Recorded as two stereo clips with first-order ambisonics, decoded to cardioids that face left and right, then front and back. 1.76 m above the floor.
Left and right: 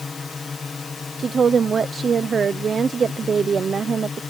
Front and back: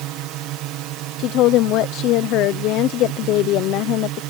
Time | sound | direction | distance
0.0 | a drone | 165° left | ?
1.2 | a woman speaking | 25° right | ?